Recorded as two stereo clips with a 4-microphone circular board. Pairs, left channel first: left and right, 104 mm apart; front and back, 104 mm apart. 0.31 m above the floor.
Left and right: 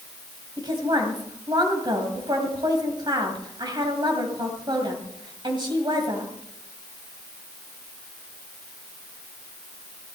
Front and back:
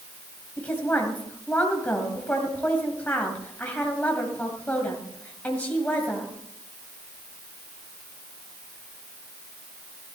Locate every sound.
0.6 s a woman speaking: 70° right, 2 m